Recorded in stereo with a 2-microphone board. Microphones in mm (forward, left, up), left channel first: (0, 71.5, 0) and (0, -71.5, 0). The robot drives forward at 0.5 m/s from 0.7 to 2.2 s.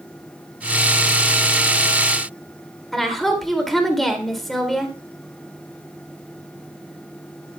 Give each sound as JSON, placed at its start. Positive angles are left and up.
{"t": 2.9, "sound": "a woman speaking", "side_deg": 0, "distance_m": 1.9}